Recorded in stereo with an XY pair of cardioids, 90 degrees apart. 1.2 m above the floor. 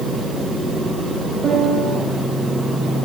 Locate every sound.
1.4 s a piano: 65° right, 2 m